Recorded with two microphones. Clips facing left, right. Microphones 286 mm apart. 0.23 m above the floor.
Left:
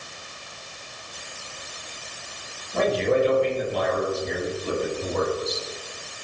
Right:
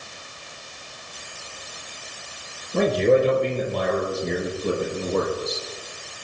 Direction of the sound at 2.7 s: 55° right (ahead or behind).